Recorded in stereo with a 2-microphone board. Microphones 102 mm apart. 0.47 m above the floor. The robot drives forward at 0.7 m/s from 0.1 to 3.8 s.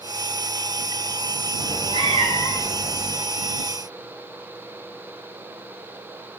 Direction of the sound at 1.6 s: 50° right (ahead or behind).